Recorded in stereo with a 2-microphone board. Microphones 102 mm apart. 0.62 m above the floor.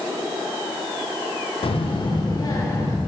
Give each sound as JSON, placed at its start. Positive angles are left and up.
{"t": 1.6, "sound": "a child speaking", "side_deg": 60, "distance_m": 0.7}